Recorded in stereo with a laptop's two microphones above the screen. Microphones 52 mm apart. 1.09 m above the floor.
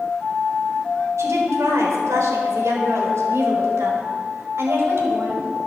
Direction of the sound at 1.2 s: 85° right.